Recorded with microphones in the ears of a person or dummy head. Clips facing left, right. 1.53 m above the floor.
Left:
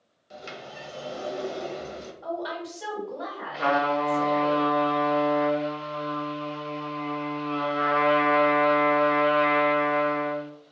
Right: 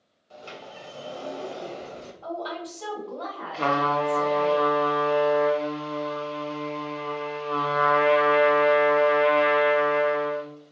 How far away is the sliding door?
About 0.5 m.